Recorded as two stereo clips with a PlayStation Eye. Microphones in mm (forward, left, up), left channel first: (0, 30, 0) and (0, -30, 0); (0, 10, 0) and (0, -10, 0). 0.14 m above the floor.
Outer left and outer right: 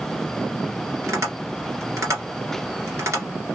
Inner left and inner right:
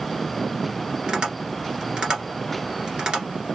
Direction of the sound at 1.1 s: 55° right (ahead or behind).